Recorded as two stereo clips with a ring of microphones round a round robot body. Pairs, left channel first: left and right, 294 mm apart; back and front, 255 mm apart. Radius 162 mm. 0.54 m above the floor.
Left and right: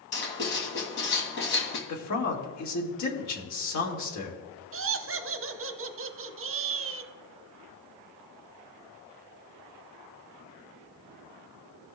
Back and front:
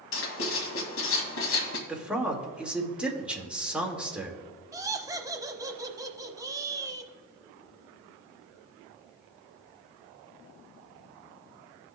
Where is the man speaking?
85° left, 1.7 m.